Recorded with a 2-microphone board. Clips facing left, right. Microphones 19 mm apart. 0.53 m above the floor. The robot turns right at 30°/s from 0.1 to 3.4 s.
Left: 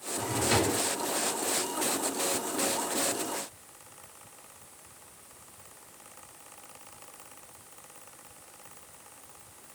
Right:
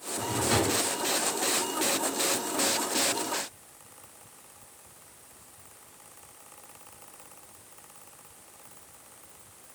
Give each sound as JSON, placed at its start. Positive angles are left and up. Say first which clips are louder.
{"t": 0.2, "sound": "a drawer", "louder": "even", "side_deg": 0, "distance_m": 3.0}